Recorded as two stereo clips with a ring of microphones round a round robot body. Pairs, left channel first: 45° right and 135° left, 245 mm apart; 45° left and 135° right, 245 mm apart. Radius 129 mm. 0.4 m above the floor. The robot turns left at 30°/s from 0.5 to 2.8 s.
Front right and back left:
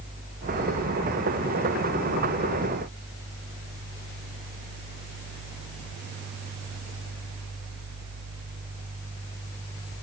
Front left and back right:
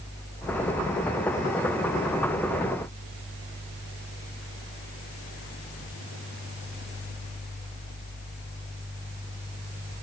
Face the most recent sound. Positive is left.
No sound to turn to.